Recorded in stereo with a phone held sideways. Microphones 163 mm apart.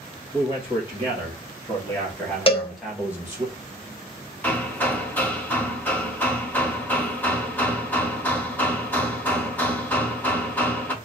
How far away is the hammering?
About 0.7 m.